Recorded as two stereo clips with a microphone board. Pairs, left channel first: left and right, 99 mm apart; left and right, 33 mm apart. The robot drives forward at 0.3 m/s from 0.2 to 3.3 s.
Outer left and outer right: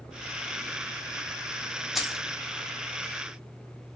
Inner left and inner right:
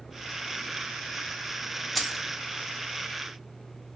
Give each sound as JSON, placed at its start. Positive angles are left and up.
{"t": 1.9, "sound": "keys jangling", "side_deg": 0, "distance_m": 0.6}